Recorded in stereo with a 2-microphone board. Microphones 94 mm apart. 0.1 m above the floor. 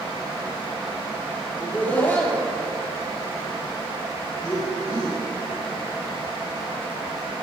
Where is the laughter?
15° left (ahead or behind), 3 m; by 5.2 s 35° left (ahead or behind), 4 m.